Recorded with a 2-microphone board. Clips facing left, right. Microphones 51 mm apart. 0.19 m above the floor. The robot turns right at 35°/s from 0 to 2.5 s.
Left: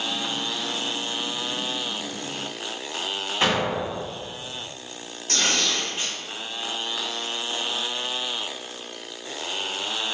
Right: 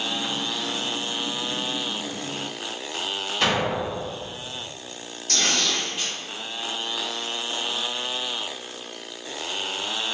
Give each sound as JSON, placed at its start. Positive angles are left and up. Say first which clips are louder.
{"t": 3.4, "sound": "an explosion", "louder": "even", "side_deg": 15, "distance_m": 1.6}
{"t": 5.3, "sound": "tearing paper", "louder": "even", "side_deg": 30, "distance_m": 1.6}